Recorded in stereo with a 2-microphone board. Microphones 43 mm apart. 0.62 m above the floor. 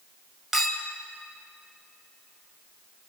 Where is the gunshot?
No gunshot in this recording.